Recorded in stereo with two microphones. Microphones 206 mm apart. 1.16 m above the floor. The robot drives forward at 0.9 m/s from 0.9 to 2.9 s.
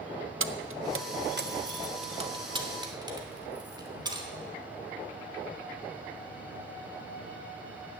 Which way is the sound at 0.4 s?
85° right.